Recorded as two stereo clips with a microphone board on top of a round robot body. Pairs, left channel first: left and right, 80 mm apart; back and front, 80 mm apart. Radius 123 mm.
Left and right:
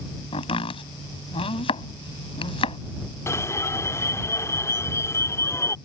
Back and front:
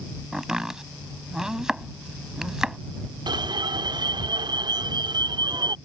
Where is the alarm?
35° left.